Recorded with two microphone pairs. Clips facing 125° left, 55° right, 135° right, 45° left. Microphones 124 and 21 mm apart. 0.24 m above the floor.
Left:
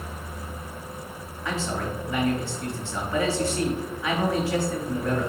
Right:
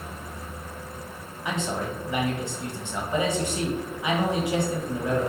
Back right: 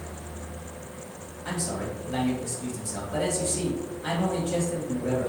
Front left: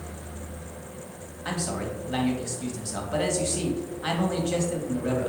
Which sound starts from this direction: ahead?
A man speaking, at 1.4 s.